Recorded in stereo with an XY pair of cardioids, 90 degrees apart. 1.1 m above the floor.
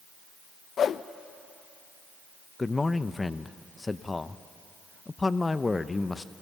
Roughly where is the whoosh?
Ahead left.